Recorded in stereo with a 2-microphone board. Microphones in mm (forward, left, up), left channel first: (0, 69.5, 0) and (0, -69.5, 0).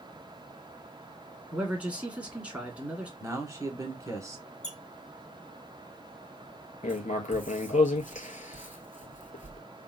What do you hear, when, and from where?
1.5 s a man speaking: 10° right (ahead or behind), 1.2 m
3.2 s a man speaking: 20° right (ahead or behind), 1.1 m
4.6 s a squeak: 55° left (ahead or behind), 0.9 m
6.8 s writing: 55° left (ahead or behind), 0.7 m